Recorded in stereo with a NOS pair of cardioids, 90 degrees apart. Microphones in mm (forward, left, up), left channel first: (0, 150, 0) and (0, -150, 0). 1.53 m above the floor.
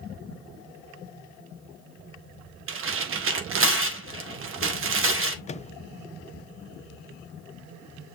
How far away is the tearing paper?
About 1.5 m.